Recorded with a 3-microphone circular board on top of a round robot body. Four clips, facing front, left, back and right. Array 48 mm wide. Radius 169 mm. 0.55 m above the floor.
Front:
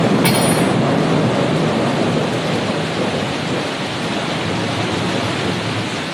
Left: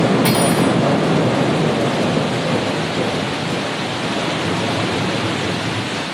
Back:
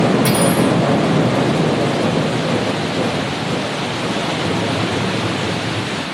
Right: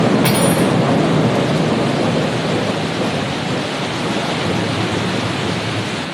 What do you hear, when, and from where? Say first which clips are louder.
0.2 s cutlery clinking: right 1 dB, even; 35° right, 1.1 m